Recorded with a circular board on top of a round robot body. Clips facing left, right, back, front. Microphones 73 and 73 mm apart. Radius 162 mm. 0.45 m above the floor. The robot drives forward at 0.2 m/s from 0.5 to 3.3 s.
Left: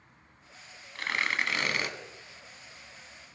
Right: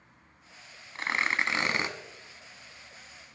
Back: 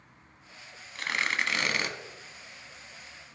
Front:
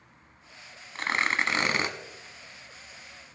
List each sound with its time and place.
0.9 s tearing paper: 35° right, 1.5 m; by 1.9 s 45° right, 1.4 m